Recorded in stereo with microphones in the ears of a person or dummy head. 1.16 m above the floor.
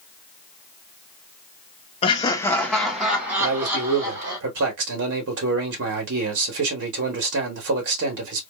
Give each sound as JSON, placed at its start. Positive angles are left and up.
{"t": 2.0, "sound": "laughter", "side_deg": 25, "distance_m": 0.7}
{"t": 3.4, "sound": "a man speaking", "side_deg": -70, "distance_m": 1.6}